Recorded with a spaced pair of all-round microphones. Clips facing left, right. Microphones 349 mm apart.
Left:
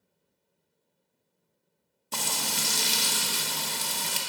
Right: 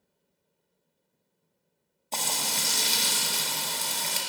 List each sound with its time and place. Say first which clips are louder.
2.1 s frying: even; 20° left (ahead or behind), 0.6 m